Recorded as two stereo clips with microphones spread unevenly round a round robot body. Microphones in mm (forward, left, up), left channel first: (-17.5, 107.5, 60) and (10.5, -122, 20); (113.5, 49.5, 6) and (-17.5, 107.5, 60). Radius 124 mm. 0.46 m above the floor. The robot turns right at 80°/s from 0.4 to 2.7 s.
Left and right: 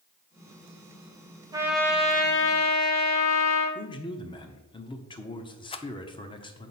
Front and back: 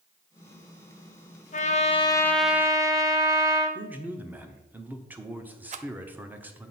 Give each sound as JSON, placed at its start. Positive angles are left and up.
{"t": 1.5, "sound": "a trumpet", "azimuth_deg": -15, "distance_m": 1.1}
{"t": 3.8, "sound": "a man speaking", "azimuth_deg": 40, "distance_m": 0.8}
{"t": 5.7, "sound": "a rattle", "azimuth_deg": 155, "distance_m": 0.5}